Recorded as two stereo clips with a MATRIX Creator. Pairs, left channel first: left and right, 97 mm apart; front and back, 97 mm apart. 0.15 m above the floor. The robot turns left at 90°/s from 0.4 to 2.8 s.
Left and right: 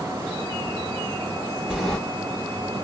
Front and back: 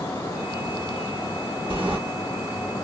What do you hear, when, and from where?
1.7 s a sliding door: 170° right, 1.9 m; by 2.0 s 165° left, 1.9 m